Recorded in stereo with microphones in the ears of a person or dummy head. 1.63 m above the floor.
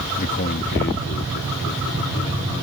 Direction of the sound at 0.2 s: 45° left (ahead or behind).